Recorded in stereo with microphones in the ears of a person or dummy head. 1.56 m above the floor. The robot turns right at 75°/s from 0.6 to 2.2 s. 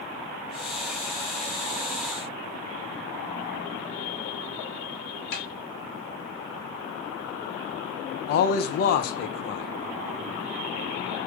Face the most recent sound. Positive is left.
turn(degrees=45)  # may be behind; listen again after turning